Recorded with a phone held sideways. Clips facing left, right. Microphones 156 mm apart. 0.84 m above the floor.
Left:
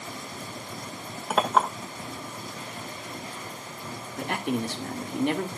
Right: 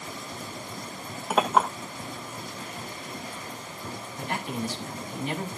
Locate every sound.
1.3 s a clink: centre (ahead or behind), 1.8 m
4.2 s a man speaking: 70° left (ahead or behind), 1.9 m